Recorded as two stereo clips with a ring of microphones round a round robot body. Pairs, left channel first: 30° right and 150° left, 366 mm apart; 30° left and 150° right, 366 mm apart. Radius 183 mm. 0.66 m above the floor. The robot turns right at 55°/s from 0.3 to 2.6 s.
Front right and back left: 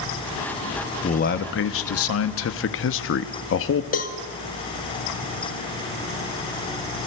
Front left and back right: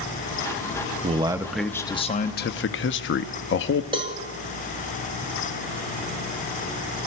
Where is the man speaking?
90° right, 0.7 m; by 3.8 s 5° right, 0.7 m.